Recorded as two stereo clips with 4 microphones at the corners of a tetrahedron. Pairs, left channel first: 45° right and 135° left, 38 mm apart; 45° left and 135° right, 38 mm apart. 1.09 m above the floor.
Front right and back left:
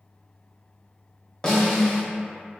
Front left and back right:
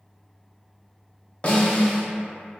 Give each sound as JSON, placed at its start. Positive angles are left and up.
{"t": 1.4, "sound": "a snare drum", "azimuth_deg": 10, "distance_m": 0.7}